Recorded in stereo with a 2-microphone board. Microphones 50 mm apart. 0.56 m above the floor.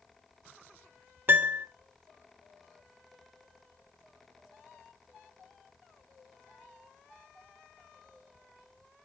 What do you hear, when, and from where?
1.3 s a piano: 40° right (ahead or behind), 0.7 m